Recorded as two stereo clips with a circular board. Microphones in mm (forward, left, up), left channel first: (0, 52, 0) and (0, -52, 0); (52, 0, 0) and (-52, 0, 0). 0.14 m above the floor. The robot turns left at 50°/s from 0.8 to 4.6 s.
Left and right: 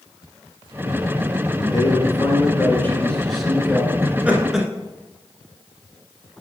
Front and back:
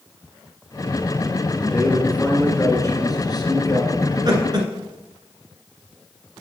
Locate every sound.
1.5 s a man speaking: 95° left, 2 m; by 3.9 s 25° right, 2 m
4.0 s laughter: 145° right, 2 m; by 4.7 s 175° right, 2 m